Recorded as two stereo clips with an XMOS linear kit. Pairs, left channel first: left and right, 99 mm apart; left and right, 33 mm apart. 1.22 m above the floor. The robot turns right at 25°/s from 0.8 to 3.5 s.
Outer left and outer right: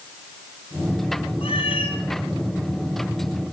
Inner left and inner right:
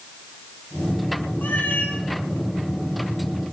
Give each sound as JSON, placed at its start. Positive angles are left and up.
{"t": 1.4, "sound": "a cat meowing", "side_deg": 70, "distance_m": 2.5}